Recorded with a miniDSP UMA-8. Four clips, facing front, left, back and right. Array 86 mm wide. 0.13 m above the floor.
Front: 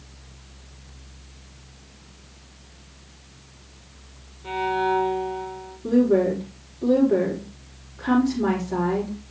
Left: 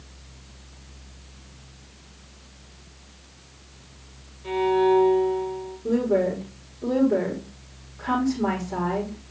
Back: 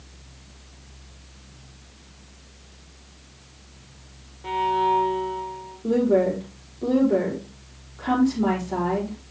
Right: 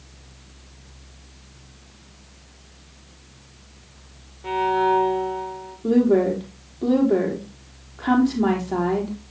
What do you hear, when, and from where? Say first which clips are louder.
4.4 s a violin: even, back 2 dB; 130° right, 3 m
5.8 s a woman speaking: right 5 dB, front 1 dB; 100° right, 5 m